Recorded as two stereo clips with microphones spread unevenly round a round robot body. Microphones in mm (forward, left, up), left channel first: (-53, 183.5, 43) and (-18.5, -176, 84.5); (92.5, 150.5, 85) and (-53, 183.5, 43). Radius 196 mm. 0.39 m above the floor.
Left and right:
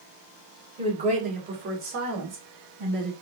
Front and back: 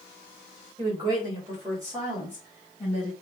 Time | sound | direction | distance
0.8 | a woman speaking | 165° right | 1.7 m